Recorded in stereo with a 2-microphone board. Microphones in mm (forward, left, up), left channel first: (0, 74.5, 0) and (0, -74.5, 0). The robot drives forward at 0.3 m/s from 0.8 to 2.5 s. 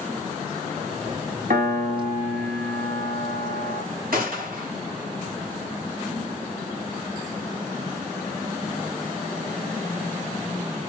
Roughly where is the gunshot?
Right.